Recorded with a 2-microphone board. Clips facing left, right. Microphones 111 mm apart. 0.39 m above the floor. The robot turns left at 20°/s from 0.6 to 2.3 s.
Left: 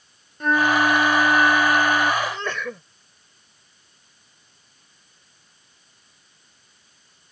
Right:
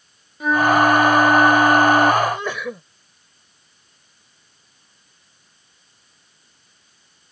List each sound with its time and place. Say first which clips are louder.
0.4 s a flute: right 4 dB; 5° right; by 2.1 s 35° right
2.2 s a sneeze: right 5 dB; 15° right (ahead or behind); by 2.8 s 10° right (ahead or behind)